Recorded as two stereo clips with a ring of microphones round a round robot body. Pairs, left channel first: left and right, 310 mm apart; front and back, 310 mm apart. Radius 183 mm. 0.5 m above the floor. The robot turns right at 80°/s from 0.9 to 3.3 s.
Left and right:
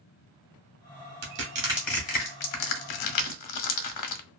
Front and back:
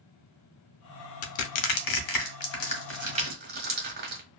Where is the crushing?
50° right, 0.7 m; by 4.2 s 120° left, 0.7 m.